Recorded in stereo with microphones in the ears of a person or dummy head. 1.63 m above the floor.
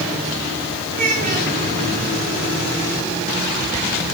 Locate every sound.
0.9 s a child speaking: 50° right (ahead or behind), 8 m